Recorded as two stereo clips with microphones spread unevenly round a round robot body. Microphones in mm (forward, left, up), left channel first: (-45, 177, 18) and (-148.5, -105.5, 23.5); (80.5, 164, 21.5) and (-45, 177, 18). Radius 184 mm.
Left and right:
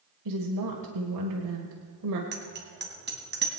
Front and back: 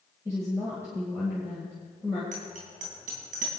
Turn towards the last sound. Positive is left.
turn(degrees=-165)